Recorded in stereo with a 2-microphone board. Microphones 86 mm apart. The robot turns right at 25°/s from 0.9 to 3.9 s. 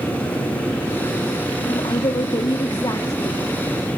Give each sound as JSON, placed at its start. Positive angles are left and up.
{"t": 1.7, "sound": "a woman speaking", "azimuth_deg": 100, "distance_m": 1.3}